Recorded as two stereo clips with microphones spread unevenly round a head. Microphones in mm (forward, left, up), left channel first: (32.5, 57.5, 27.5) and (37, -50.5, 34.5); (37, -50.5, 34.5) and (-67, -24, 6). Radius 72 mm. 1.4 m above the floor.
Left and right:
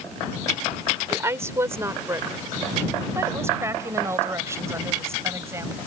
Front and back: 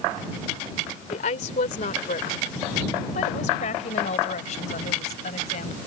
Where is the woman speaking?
25° right.